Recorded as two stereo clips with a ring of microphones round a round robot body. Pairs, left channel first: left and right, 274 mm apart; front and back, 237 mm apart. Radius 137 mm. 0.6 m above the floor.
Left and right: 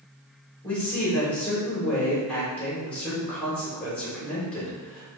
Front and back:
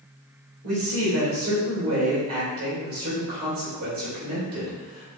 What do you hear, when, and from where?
0.6 s a man speaking: 175° left, 1.5 m